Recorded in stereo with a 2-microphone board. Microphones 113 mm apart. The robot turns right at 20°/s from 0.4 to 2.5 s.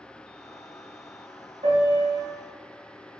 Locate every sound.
1.6 s a piano: 70° right (ahead or behind), 1.2 m; by 2.3 s 60° right (ahead or behind), 1.2 m